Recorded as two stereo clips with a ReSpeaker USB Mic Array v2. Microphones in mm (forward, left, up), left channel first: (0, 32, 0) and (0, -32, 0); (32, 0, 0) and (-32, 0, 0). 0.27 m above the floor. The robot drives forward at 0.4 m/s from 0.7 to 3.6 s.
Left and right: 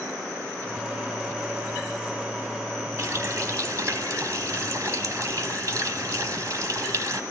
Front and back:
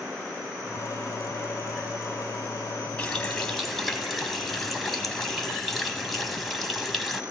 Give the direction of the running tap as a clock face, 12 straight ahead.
2 o'clock.